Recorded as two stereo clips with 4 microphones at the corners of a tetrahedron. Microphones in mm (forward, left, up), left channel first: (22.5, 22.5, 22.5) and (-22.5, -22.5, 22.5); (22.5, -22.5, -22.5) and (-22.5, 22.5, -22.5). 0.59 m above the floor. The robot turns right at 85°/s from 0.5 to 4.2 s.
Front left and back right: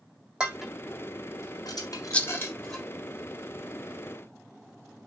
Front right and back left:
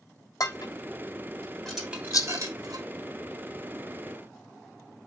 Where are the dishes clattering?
60° right, 3 m; by 2.8 s 140° left, 3 m.